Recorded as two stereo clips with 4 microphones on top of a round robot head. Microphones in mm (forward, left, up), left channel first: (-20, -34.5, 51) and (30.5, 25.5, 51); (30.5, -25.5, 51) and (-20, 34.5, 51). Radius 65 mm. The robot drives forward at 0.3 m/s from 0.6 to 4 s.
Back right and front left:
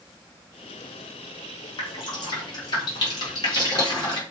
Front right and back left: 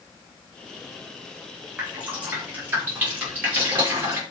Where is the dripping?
160° right, 4 m.